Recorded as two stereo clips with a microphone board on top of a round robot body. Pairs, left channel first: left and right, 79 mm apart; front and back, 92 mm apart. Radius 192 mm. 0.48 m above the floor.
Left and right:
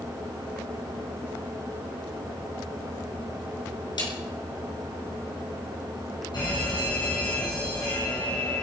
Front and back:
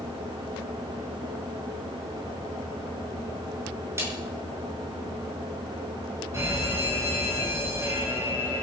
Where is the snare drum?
115° left, 6 m.